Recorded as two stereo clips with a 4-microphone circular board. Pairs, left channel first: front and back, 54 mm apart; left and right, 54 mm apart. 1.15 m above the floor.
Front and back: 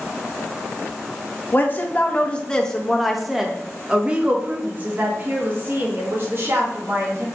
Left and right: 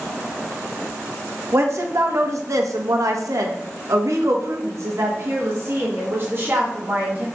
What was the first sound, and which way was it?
A woman speaking, 55° right.